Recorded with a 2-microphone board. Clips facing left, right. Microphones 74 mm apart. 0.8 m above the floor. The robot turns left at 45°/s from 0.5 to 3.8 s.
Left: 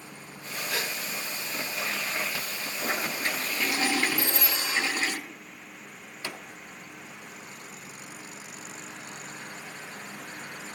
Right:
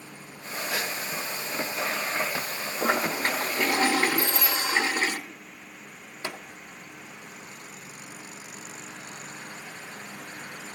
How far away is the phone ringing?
About 5 m.